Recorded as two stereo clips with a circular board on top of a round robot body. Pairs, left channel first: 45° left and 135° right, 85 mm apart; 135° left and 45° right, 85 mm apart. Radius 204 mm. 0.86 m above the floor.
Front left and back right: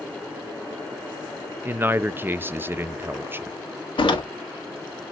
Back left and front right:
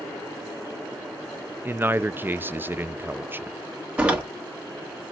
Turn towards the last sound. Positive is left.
turn(degrees=30)